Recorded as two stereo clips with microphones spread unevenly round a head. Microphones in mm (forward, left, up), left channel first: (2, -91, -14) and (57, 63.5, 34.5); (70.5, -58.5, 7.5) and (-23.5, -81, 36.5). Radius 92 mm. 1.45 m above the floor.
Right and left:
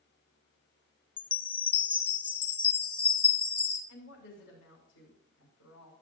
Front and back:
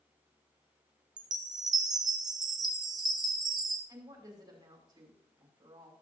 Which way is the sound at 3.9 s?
120° right.